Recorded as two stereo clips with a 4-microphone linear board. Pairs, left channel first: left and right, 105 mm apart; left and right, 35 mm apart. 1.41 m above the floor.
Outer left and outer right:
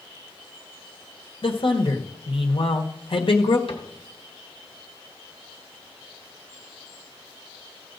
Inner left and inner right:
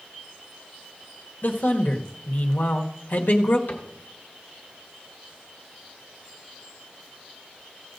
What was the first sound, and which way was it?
A man speaking, 60° left (ahead or behind).